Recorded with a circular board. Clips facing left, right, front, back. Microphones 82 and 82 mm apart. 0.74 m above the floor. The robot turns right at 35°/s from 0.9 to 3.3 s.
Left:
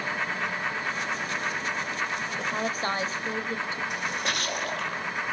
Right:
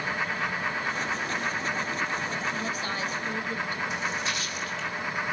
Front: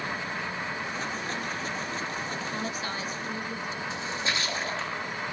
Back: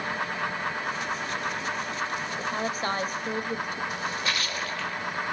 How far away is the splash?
About 1.4 m.